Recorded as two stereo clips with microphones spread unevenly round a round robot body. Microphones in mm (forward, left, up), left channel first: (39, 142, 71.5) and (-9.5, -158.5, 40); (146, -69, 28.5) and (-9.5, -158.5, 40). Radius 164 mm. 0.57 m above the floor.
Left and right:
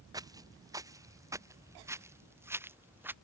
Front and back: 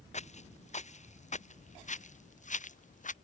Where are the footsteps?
20° right; by 3.1 s 15° right.